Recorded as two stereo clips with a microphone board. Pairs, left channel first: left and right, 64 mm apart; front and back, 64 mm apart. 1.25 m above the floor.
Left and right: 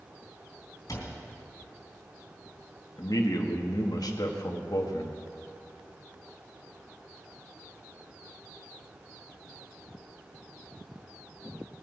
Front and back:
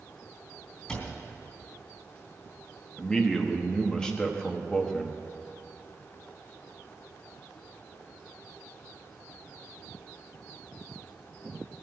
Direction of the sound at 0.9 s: 75° left.